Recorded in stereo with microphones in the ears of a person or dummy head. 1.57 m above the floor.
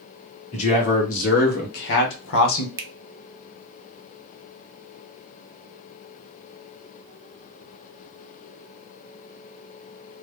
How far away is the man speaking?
About 1.7 m.